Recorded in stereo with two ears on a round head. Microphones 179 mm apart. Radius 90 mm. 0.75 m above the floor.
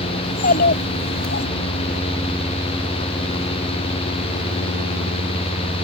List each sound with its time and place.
0.2 s a child speaking: 45° left (ahead or behind); by 1.5 s 55° left (ahead or behind)